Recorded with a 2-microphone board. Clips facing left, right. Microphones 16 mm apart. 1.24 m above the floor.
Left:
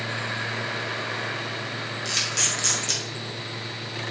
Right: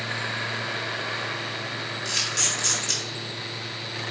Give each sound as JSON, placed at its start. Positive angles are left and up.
{"t": 2.0, "sound": "a camera shutter", "side_deg": 10, "distance_m": 1.9}